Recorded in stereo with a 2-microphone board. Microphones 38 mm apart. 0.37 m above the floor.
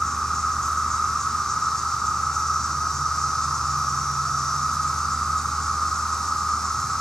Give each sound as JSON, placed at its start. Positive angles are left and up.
{"t": 0.0, "sound": "an insect", "side_deg": 10, "distance_m": 2.5}